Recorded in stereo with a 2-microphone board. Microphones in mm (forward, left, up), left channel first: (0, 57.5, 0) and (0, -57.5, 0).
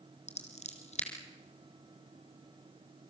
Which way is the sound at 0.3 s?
75° left (ahead or behind).